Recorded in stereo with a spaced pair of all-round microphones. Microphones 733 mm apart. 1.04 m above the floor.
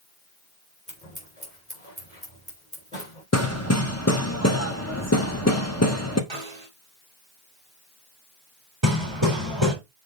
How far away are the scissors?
About 4.5 m.